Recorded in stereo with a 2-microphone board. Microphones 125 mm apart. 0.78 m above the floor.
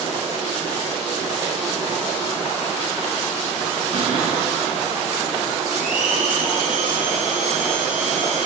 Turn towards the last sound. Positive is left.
turn(degrees=-80)